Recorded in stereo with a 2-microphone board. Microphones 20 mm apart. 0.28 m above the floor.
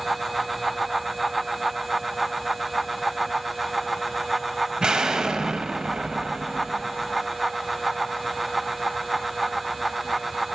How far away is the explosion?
About 0.9 m.